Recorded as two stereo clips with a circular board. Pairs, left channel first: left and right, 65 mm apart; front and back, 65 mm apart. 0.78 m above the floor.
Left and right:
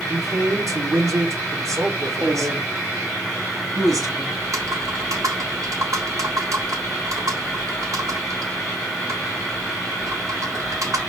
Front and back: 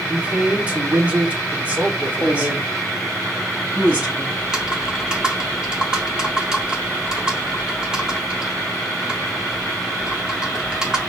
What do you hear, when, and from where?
0.1 s a man speaking: 110° right, 2 m
2.2 s a woman speaking: 115° right, 3.5 m
4.4 s typing on a keyboard: 100° right, 1.8 m